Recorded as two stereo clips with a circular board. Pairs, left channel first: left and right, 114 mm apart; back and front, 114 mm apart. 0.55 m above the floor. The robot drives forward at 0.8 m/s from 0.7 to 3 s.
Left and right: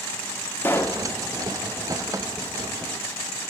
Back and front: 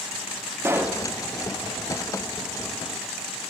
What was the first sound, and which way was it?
A pop, 45° left.